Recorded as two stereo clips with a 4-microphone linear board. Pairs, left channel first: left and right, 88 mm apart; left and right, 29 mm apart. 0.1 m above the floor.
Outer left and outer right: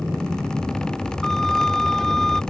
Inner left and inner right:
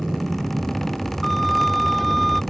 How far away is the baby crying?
I don't hear a baby crying.